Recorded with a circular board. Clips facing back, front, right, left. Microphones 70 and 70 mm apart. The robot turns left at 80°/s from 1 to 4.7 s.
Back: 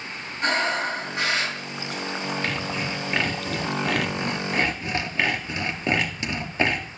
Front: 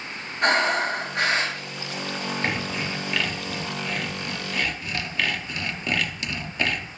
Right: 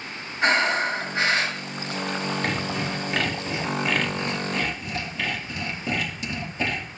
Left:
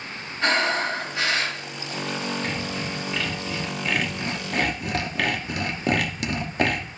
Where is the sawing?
65° right, 1.0 m; by 6.8 s 115° left, 1.0 m.